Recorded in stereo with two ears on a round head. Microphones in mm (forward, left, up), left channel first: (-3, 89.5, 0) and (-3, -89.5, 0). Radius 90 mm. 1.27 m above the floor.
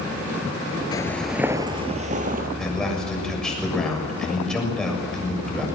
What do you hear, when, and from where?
0.9 s footsteps: 20° left (ahead or behind), 1.3 m; by 2.5 s 45° right (ahead or behind), 2.5 m
2.6 s a man speaking: 5° left (ahead or behind), 6.5 m